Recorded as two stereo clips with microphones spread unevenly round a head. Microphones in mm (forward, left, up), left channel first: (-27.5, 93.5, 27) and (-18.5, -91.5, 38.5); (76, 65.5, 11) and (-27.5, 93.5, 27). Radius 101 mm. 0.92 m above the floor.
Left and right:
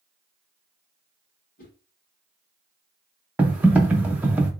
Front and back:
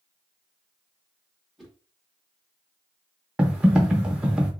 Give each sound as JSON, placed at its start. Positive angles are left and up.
{"t": 1.6, "sound": "a whoosh", "azimuth_deg": 75, "distance_m": 1.6}
{"t": 3.4, "sound": "typing on a keyboard", "azimuth_deg": -150, "distance_m": 0.5}